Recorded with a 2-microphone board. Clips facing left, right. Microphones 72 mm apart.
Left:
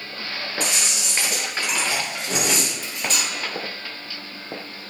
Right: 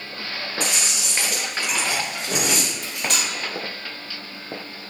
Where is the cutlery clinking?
65° right (ahead or behind), 0.6 m.